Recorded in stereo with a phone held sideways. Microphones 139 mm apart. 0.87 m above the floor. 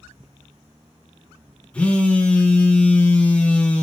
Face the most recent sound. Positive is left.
turn(degrees=10)  # may be behind; listen again after turning